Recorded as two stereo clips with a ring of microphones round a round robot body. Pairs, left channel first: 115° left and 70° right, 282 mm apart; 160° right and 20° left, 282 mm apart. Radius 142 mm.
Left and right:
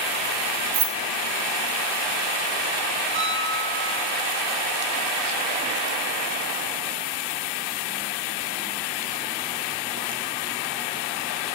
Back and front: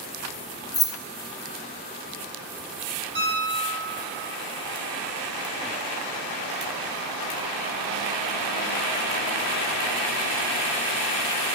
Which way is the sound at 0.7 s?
80° right.